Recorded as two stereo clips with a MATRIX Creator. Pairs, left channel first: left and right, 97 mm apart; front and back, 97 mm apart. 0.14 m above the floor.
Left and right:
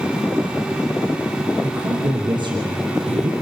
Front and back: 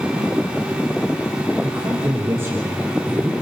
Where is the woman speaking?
120° right, 5 m; by 3.3 s 105° right, 3.5 m.